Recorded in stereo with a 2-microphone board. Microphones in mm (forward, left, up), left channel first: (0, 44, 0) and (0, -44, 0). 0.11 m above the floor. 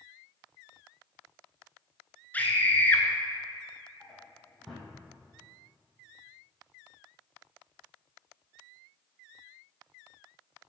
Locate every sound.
2.3 s a scream: 20° left (ahead or behind), 1.2 m
4.0 s a drawer: 5° left (ahead or behind), 3 m